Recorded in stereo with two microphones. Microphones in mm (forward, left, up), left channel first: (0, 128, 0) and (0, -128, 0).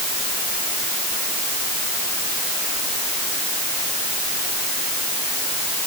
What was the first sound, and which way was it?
Only background noise.